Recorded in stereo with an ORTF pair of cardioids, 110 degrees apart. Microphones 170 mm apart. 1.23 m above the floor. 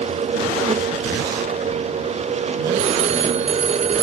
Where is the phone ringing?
45° right.